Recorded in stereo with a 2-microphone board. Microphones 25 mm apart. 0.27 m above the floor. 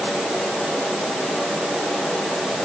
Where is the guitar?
I don't hear a guitar.